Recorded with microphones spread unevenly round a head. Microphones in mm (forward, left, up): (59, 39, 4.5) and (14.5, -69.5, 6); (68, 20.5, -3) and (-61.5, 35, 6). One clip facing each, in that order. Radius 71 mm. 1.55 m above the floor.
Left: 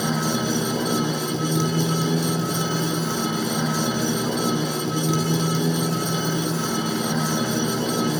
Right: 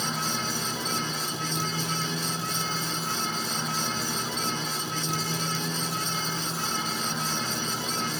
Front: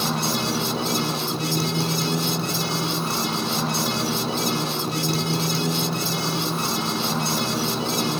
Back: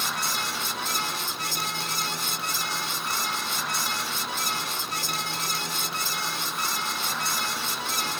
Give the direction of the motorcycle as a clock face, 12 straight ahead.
10 o'clock.